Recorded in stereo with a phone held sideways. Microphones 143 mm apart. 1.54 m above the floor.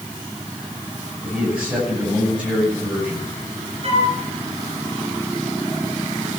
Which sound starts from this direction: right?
A flute, at 3.8 s.